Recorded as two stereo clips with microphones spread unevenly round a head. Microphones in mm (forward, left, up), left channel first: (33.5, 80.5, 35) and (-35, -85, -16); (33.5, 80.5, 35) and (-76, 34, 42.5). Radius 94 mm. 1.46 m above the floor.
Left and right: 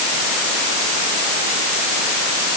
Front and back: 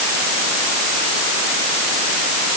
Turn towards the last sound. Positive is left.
No sound to turn to.